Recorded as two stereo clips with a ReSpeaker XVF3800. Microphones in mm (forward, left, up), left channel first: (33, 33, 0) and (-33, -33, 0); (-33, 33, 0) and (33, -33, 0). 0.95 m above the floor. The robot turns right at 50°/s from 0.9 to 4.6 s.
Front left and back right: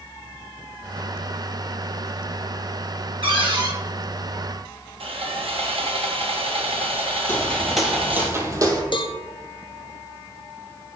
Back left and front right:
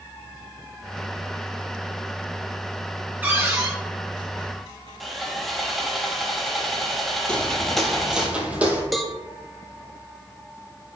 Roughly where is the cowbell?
Ahead left.